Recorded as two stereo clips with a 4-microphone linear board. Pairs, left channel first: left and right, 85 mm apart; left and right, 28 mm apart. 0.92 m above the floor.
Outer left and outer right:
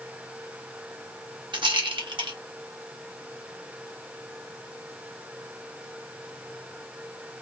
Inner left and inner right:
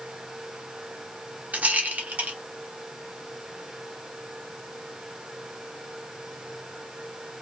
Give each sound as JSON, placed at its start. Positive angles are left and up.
{"t": 1.5, "sound": "a rattle", "side_deg": -70, "distance_m": 0.9}